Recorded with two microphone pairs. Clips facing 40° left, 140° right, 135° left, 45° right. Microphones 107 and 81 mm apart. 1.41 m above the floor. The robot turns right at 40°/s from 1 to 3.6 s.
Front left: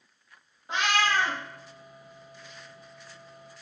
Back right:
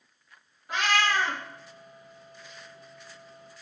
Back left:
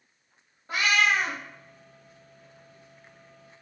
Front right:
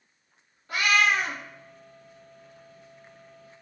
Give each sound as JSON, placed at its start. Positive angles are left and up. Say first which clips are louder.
{"t": 0.7, "sound": "a cat meowing", "louder": "even, front right 1 dB", "azimuth_deg": 90, "distance_m": 0.7}